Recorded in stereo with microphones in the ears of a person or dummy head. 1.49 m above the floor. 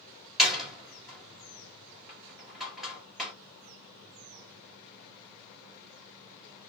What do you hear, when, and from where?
0.4 s a door slam: centre (ahead or behind), 1.2 m